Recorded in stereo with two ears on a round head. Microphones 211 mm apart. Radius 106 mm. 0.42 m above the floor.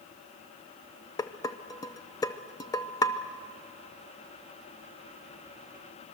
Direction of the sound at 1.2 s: 15° left (ahead or behind).